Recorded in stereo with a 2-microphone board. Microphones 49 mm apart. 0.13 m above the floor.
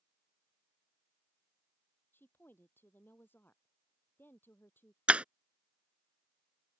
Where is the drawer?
I don't hear a drawer.